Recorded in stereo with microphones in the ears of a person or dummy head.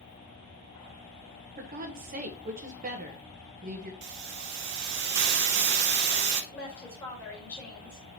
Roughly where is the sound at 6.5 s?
Centre.